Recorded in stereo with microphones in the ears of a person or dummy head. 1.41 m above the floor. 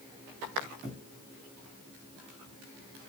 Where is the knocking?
I don't hear knocking.